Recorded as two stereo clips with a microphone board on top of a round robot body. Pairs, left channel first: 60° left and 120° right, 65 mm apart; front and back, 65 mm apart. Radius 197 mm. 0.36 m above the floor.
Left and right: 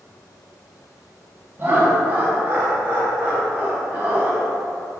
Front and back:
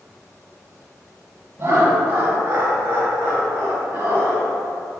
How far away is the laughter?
About 0.8 m.